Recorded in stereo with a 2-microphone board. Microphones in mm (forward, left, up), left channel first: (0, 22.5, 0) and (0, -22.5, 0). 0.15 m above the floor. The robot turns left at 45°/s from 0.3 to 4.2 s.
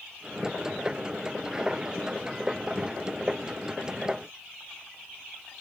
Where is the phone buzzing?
I don't hear a phone buzzing.